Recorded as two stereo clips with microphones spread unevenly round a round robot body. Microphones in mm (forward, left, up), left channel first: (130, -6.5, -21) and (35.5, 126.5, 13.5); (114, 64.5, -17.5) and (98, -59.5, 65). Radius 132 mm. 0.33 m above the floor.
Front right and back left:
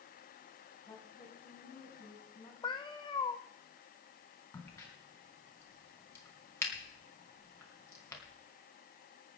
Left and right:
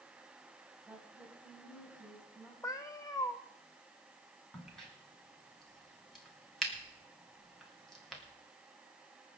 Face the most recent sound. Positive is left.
turn(degrees=15)